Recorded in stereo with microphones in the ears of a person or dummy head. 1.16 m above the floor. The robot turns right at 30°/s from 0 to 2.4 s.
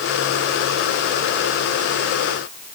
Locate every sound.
Only background noise.